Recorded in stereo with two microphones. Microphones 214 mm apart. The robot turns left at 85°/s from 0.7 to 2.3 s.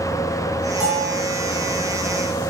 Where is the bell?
170° right, 3.5 m; by 1.2 s 155° left, 3.5 m.